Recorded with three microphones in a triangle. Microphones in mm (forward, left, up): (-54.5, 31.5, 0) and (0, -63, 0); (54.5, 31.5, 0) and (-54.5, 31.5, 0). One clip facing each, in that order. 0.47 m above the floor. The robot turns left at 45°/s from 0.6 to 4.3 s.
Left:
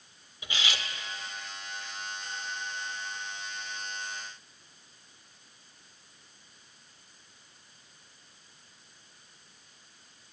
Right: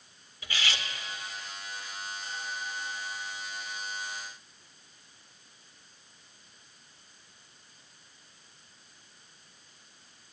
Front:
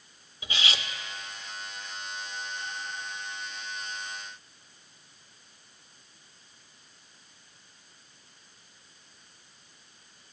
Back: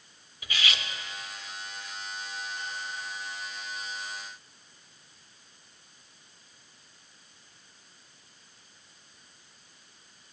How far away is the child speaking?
I don't hear a child speaking.